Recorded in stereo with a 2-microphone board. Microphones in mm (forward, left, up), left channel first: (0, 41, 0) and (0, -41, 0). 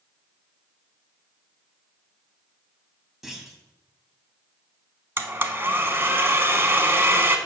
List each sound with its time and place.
3.2 s a clunk: 5° right (ahead or behind), 1.1 m
5.2 s a blender: 30° right (ahead or behind), 0.7 m